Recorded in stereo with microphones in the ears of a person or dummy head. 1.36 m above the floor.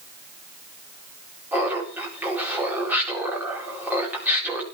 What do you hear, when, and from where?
1.5 s laughter: 15° right (ahead or behind), 4.5 m